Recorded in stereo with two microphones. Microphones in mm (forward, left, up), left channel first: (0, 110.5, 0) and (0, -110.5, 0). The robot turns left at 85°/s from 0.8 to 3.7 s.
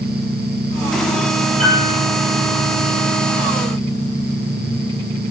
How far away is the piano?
About 7 m.